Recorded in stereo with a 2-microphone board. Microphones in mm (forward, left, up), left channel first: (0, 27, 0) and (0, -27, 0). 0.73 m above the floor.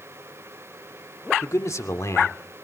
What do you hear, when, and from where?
1.4 s a man speaking: 65° left (ahead or behind), 1.6 m